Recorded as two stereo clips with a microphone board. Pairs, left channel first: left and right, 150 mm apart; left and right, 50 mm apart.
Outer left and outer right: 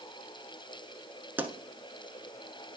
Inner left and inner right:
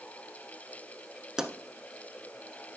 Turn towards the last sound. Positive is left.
turn(degrees=-15)  # may be behind; listen again after turning